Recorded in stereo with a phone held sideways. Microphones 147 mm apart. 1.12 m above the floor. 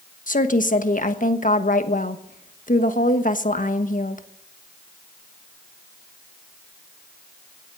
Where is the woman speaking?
65° left (ahead or behind), 1.2 m.